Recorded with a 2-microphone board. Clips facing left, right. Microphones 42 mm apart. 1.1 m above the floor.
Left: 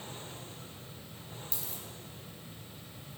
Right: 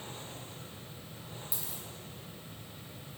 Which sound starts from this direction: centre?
A dropped coin, at 1.5 s.